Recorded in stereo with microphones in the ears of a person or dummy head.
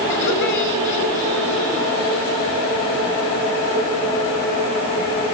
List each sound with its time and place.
0.1 s laughter: 65° left (ahead or behind), 5 m